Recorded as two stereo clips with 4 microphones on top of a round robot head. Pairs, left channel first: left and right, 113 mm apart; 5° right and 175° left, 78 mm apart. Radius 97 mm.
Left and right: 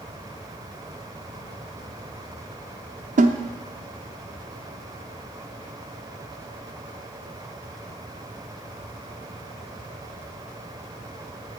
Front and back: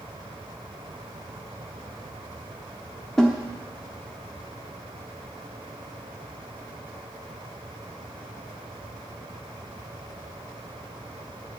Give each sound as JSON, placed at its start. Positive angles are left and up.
{"t": 3.2, "sound": "a snare drum", "azimuth_deg": -90, "distance_m": 0.8}